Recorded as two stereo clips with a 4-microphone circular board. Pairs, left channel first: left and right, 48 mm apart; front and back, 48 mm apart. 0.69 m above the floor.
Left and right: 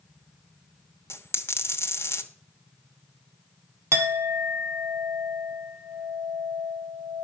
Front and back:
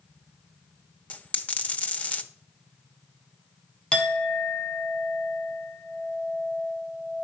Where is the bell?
No bell in this recording.